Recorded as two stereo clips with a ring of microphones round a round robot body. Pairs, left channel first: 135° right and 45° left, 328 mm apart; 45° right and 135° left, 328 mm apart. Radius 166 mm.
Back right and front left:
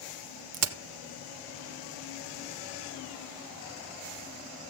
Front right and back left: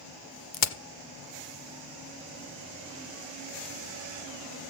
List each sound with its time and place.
0.5 s a crack: straight ahead, 1.0 m